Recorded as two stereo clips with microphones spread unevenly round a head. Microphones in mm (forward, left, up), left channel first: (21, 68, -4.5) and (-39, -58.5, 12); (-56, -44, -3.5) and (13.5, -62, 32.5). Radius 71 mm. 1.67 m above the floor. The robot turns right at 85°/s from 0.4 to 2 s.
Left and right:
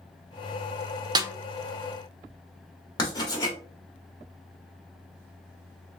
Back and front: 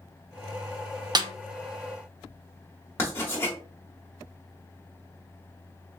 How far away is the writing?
About 1.0 m.